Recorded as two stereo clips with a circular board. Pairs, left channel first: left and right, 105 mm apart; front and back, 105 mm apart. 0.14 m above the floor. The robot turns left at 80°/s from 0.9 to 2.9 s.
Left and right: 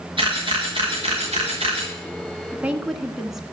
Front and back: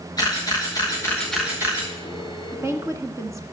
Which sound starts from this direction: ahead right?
A camera shutter, at 0.2 s.